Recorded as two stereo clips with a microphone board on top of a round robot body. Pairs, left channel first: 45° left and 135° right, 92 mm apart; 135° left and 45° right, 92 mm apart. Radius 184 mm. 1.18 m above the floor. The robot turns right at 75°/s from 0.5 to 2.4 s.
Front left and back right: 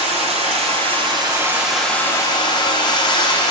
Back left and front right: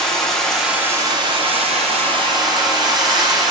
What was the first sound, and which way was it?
Running water, 140° right.